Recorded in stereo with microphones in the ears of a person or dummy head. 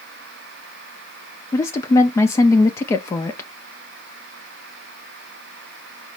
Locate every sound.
1.5 s a woman speaking: 20° left (ahead or behind), 0.6 m